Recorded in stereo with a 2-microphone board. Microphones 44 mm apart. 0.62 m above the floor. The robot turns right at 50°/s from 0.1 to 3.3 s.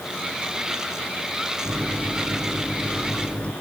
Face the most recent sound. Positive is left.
turn(degrees=30)